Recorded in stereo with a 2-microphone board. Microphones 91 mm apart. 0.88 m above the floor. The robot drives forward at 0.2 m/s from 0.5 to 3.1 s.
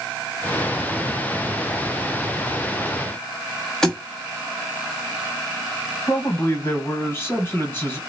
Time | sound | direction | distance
3.8 | a thud | 5° left (ahead or behind) | 0.8 m
6.1 | a man speaking | 25° left (ahead or behind) | 1.1 m